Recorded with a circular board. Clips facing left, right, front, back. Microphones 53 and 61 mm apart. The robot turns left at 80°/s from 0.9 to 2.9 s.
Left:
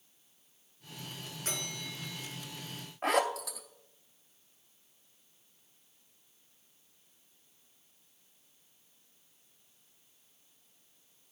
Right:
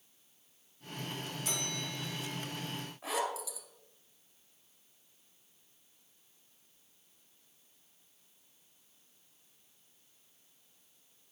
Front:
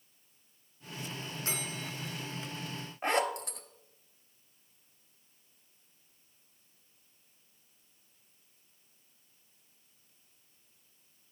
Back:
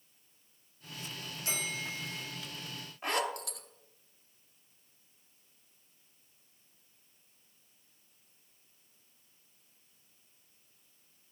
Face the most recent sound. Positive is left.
turn(degrees=60)